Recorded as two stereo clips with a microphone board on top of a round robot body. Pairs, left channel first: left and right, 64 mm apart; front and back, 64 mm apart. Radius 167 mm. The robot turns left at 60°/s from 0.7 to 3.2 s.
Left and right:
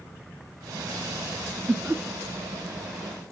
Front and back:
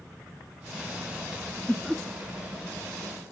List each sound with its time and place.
1.7 s laughter: 75° right, 0.8 m; by 2.0 s 95° right, 0.8 m